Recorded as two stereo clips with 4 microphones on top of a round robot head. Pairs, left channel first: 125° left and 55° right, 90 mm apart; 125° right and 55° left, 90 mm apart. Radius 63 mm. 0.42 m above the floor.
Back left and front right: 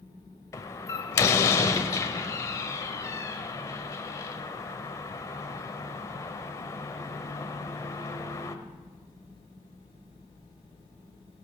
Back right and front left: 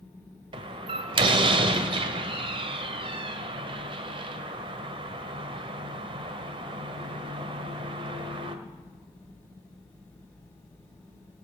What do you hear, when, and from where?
0.5 s a door slam: 70° left, 1.2 m